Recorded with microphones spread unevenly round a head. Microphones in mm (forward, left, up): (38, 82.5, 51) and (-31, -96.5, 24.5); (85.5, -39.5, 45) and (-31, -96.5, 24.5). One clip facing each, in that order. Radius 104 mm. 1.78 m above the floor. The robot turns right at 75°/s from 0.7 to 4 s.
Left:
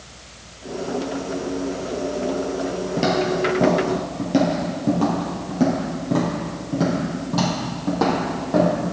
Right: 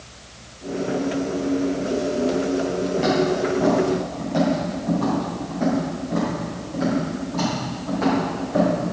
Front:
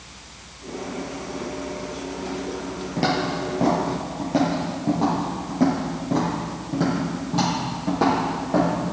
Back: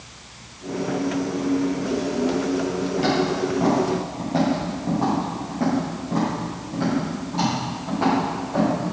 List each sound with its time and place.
3.0 s footsteps: 45° left, 2.5 m; by 8.7 s 60° left, 5 m